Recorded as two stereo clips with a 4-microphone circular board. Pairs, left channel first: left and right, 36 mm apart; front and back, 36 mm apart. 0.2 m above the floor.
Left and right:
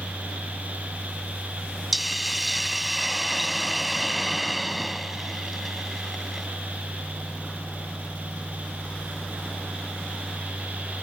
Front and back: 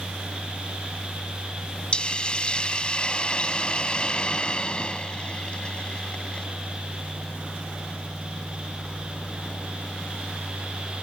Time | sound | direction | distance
1.9 | a hiss | 5° right | ?